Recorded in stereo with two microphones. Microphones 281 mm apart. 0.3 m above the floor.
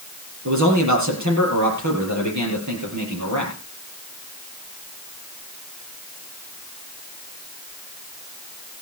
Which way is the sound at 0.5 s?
70° right (ahead or behind).